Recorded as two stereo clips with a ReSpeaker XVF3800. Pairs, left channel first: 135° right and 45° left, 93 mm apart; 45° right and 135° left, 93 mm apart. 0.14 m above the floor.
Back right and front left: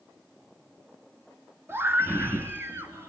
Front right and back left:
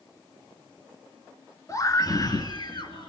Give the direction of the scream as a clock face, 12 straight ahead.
12 o'clock.